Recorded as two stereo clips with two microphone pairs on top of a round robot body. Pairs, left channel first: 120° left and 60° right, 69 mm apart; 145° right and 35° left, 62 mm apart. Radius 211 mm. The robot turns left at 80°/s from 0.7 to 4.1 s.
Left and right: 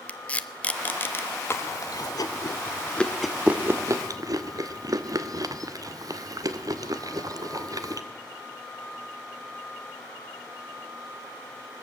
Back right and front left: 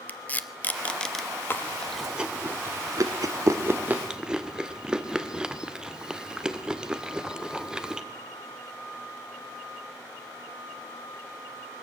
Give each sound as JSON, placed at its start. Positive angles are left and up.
{"t": 0.1, "sound": "tape being pulled", "azimuth_deg": 175, "distance_m": 1.6}
{"t": 1.5, "sound": "chewing", "azimuth_deg": 165, "distance_m": 2.5}